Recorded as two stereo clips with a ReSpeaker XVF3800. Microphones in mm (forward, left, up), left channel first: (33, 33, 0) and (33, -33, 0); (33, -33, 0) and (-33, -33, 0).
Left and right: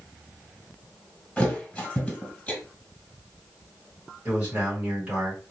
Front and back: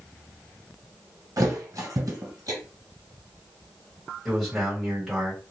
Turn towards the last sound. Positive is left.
turn(degrees=-105)